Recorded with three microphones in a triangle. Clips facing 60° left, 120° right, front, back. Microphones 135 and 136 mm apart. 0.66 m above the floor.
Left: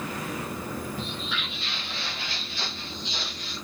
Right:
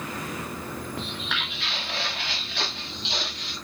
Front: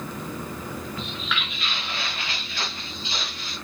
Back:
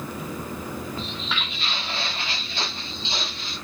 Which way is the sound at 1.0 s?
125° right.